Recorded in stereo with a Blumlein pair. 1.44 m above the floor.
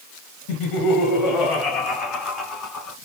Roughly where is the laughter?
Ahead left.